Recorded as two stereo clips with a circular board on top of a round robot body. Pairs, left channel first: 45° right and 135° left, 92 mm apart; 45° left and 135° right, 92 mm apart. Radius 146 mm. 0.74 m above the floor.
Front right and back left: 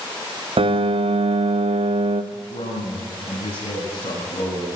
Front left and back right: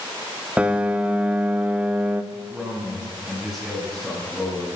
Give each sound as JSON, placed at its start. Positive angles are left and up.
{"t": 0.6, "sound": "a piano", "azimuth_deg": 150, "distance_m": 1.5}
{"t": 2.3, "sound": "a man speaking", "azimuth_deg": -55, "distance_m": 9.5}